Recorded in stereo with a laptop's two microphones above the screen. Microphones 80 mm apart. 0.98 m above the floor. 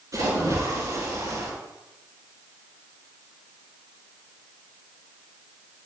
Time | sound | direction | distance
0.1 | a splash | 40° right (ahead or behind) | 7.5 m